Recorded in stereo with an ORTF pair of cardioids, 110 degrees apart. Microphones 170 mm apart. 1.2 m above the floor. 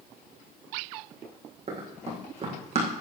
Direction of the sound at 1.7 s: 40° right.